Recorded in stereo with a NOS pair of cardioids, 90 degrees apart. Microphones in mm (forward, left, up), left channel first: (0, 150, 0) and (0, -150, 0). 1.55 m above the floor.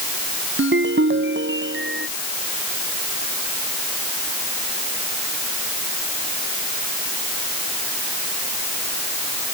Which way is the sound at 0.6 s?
40° right.